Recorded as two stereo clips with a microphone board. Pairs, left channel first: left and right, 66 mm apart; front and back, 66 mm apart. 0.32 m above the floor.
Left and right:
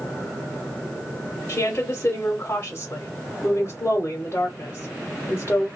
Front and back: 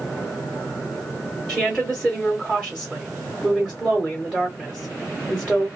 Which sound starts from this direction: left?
A woman speaking, at 1.5 s.